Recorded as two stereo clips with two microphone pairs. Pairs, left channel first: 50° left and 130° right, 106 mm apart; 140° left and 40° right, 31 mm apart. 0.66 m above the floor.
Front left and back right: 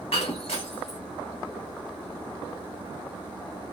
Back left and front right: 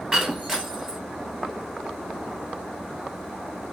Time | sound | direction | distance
0.1 | breaking glass | 40° left | 2.5 m